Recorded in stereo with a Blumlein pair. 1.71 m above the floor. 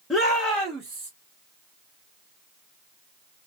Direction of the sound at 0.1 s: 5° left.